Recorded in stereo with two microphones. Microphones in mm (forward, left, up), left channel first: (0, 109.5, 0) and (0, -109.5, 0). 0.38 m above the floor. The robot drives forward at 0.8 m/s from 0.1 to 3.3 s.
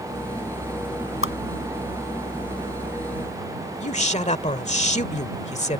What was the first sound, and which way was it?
A whoosh, 70° left (ahead or behind).